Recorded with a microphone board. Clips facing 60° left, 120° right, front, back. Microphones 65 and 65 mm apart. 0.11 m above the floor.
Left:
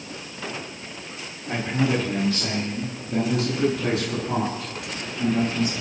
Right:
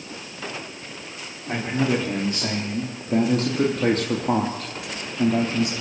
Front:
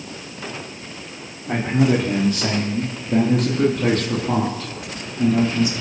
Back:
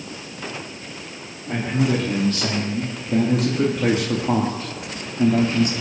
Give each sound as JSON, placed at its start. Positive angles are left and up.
{"t": 1.5, "sound": "a man speaking", "azimuth_deg": -50, "distance_m": 4.5}